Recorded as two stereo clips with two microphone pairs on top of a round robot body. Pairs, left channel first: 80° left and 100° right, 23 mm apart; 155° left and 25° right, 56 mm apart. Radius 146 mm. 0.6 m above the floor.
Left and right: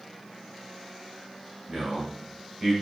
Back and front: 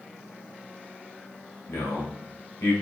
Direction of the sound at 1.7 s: 155° right.